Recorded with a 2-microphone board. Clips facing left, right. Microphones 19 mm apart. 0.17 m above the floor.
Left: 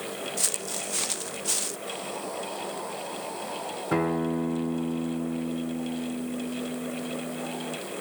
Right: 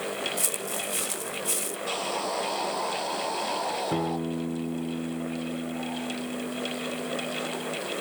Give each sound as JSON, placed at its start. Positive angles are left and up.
{"t": 0.4, "sound": "footsteps", "side_deg": 40}
{"t": 1.9, "sound": "sawing", "side_deg": -45}
{"t": 3.9, "sound": "a guitar", "side_deg": 55}